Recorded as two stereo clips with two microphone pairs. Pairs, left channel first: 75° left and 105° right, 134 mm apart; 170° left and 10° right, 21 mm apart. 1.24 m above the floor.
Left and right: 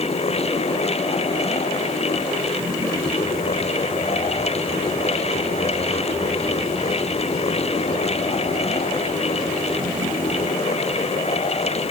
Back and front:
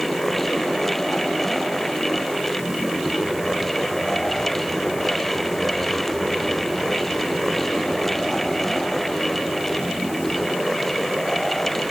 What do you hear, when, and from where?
Only background noise.